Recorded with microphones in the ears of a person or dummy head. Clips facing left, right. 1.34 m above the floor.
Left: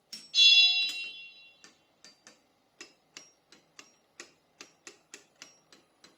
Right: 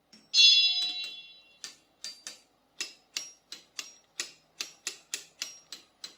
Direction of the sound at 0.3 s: 60° right (ahead or behind).